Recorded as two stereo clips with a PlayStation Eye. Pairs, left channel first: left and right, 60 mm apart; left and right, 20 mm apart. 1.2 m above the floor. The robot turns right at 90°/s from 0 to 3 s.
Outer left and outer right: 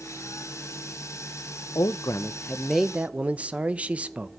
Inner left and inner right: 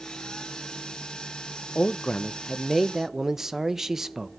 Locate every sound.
1.8 s a man speaking: 90° left, 0.5 m; by 4.3 s 160° right, 0.5 m